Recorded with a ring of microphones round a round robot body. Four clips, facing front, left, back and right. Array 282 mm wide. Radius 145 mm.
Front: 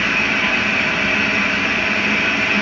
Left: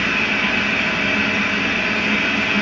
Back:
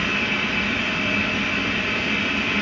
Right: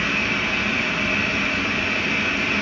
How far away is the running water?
About 3.5 m.